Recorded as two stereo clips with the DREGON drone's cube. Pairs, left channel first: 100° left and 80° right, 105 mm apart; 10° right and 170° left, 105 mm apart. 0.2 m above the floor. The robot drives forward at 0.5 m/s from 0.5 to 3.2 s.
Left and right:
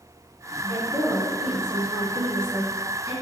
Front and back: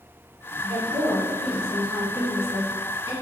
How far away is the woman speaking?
About 1.3 m.